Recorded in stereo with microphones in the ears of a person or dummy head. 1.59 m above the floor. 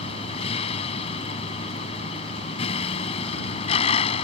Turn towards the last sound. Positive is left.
turn(degrees=30)  # may be behind; listen again after turning